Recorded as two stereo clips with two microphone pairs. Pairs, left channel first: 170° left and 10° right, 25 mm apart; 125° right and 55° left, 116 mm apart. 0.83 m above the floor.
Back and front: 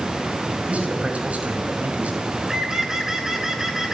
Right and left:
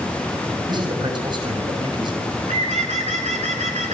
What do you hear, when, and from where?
0.7 s a man speaking: 10° left, 5.5 m
2.2 s a bird: 60° left, 2.5 m